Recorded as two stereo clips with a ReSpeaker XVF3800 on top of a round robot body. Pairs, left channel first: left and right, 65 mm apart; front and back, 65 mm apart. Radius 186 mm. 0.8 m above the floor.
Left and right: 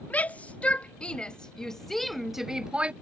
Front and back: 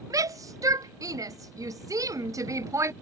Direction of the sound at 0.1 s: 155° left.